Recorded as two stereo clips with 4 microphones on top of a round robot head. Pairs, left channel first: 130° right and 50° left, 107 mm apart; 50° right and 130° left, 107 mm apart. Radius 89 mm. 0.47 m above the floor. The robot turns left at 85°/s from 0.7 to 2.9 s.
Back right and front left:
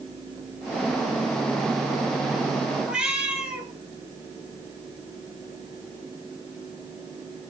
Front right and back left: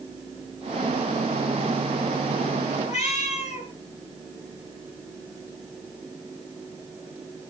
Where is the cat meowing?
25° right, 4.5 m; by 3.7 s 30° right, 4.5 m.